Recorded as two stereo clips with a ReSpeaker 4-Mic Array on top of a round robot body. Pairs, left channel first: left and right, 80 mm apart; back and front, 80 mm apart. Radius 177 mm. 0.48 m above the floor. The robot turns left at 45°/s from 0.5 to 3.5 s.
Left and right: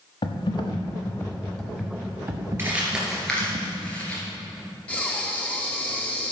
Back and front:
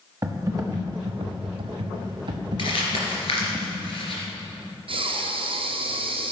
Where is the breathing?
15° left, 1.1 m.